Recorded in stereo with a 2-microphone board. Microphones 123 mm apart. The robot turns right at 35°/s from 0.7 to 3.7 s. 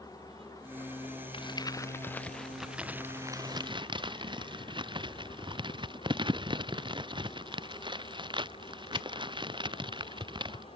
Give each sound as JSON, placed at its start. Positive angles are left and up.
{"t": 0.0, "sound": "an engine running", "azimuth_deg": 30}
{"t": 1.3, "sound": "crumpling", "side_deg": 40}